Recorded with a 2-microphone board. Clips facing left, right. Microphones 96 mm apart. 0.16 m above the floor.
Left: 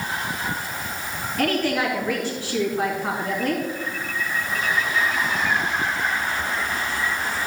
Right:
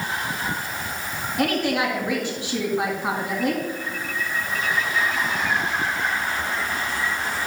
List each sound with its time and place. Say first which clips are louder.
1.4 s a woman speaking: even; 15° right (ahead or behind), 2 m